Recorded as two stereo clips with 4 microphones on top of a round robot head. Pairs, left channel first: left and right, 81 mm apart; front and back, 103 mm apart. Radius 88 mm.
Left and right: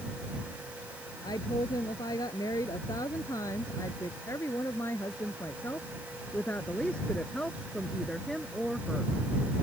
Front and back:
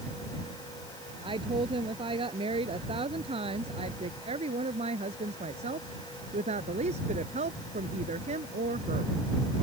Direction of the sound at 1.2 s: 140° left.